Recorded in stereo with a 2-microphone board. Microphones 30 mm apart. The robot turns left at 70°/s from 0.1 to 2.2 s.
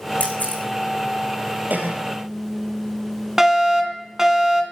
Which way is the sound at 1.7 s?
70° right (ahead or behind).